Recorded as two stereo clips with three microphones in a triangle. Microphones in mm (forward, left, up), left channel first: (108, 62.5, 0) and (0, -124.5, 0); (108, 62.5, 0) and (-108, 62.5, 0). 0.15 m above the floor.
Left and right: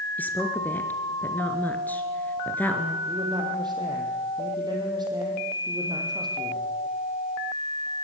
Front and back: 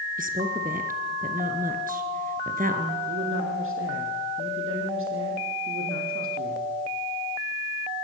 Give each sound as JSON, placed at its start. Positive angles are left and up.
{"t": 0.2, "sound": "a woman speaking", "azimuth_deg": 140, "distance_m": 3.0}
{"t": 3.1, "sound": "a man speaking", "azimuth_deg": 170, "distance_m": 6.5}